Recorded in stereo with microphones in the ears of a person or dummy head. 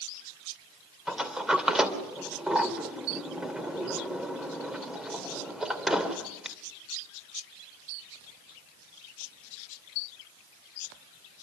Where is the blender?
I don't hear a blender.